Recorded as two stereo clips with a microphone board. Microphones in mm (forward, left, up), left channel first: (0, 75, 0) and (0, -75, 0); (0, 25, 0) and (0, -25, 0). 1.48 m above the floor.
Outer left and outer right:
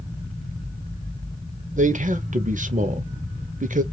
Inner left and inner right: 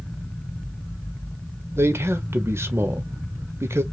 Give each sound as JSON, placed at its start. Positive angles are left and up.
{"t": 1.8, "sound": "a man speaking", "side_deg": -60, "distance_m": 0.7}